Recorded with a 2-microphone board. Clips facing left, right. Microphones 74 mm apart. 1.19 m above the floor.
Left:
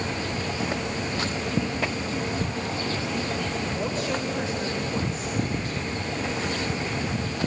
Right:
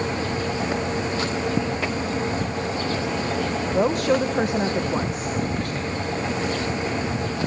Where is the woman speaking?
60° right (ahead or behind), 1.1 m.